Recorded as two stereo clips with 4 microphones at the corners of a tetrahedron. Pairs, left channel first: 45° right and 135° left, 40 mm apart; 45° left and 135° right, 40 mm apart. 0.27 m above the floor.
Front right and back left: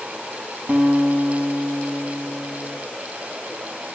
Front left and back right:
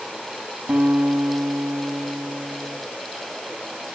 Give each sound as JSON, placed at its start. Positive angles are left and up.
{"t": 0.7, "sound": "a guitar", "azimuth_deg": 170, "distance_m": 1.7}